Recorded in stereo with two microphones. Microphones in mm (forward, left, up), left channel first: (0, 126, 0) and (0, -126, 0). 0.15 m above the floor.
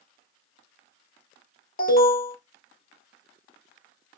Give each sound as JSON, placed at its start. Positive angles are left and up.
{"t": 1.8, "sound": "an alarm", "side_deg": 35, "distance_m": 0.9}